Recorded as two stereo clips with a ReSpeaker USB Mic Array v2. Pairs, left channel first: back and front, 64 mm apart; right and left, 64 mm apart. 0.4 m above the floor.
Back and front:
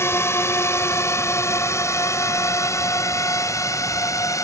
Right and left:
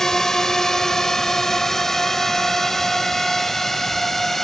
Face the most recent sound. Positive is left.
turn(degrees=-175)